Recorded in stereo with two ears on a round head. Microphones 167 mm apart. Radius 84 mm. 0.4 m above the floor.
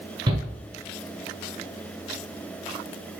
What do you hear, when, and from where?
0.3 s a shout: 25° right (ahead or behind), 4.5 m